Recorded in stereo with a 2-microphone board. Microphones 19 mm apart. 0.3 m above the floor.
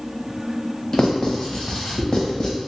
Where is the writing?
40° left (ahead or behind), 0.8 m.